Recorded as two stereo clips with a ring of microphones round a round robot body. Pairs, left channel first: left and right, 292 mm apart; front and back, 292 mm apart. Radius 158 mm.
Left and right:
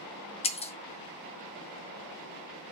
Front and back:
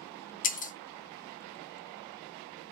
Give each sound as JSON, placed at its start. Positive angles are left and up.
{"t": 0.4, "sound": "breaking glass", "azimuth_deg": 40, "distance_m": 0.5}